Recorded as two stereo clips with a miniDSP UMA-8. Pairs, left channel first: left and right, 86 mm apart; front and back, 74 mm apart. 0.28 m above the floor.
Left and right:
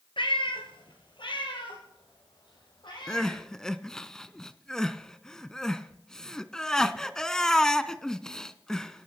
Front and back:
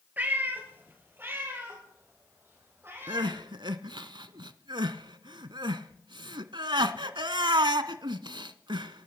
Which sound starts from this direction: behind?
Crying, at 3.1 s.